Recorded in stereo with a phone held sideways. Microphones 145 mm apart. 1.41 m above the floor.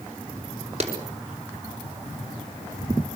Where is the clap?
45° right (ahead or behind), 5 m.